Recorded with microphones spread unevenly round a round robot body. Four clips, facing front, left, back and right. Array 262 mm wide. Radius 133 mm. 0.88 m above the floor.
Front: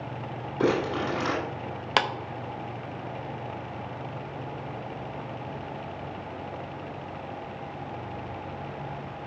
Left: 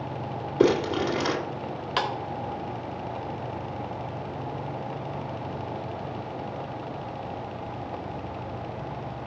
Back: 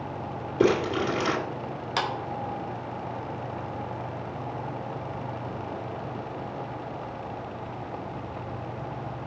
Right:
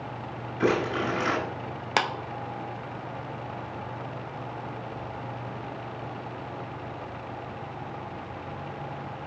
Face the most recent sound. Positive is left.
turn(degrees=-25)